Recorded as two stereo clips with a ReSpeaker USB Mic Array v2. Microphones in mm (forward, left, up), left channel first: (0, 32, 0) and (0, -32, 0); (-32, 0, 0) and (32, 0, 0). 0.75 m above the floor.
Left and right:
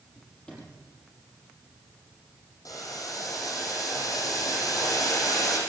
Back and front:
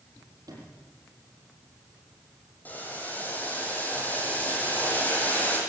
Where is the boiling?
115° left, 6 m.